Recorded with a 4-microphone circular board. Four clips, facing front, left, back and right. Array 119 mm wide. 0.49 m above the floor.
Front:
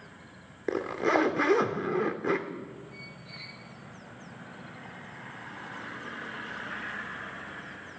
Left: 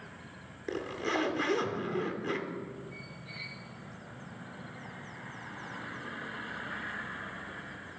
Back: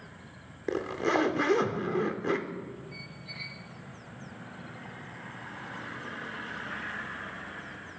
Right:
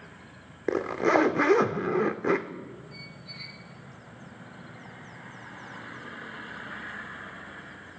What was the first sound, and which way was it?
A zipper, 75° right.